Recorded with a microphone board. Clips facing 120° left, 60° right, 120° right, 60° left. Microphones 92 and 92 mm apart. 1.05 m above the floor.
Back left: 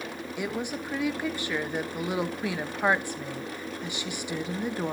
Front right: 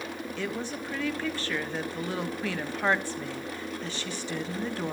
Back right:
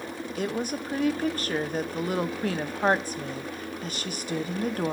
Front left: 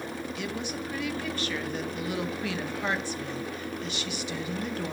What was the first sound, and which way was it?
A woman speaking, 165° right.